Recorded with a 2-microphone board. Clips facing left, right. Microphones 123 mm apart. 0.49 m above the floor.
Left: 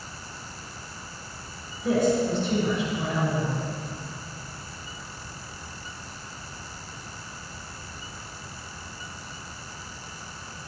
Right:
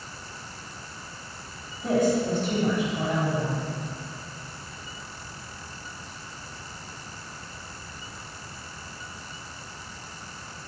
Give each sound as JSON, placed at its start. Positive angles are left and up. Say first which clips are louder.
{"t": 1.8, "sound": "a woman speaking", "louder": "even", "side_deg": -50, "distance_m": 3.0}